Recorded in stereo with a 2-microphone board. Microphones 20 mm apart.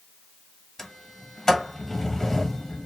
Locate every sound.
0.8 s a sliding door: 20° left (ahead or behind), 0.7 m